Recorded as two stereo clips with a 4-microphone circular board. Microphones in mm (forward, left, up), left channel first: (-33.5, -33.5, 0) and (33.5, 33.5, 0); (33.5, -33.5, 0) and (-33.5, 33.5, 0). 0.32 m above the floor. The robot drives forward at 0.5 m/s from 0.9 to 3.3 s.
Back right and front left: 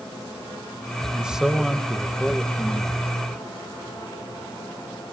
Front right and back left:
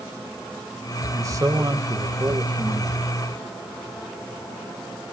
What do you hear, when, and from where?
1.1 s a man speaking: 115° left, 1.2 m; by 3.1 s 155° left, 1.7 m